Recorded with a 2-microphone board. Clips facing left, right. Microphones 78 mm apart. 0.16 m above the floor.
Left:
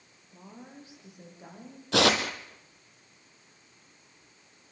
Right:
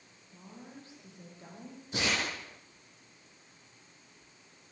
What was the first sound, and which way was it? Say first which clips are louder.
A woman speaking: left 2 dB; 20° left (ahead or behind).